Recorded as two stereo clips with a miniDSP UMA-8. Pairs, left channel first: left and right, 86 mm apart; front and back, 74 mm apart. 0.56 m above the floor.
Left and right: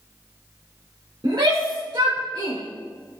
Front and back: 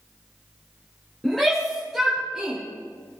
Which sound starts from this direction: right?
A shout, at 1.2 s.